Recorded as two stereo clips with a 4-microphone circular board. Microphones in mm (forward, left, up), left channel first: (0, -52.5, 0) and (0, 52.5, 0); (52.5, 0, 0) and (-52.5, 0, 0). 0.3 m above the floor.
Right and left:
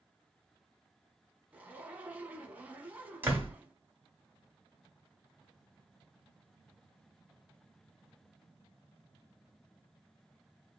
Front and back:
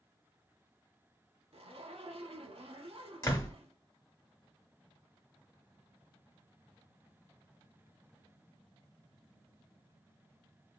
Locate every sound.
1.5 s a zipper: 165° left, 0.7 m
3.2 s a door slam: 35° left, 1.2 m